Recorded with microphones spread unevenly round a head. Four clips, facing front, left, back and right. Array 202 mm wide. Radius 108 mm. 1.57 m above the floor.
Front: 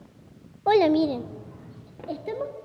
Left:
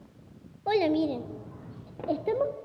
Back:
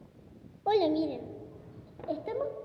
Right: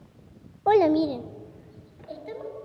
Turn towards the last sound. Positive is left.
turn(degrees=80)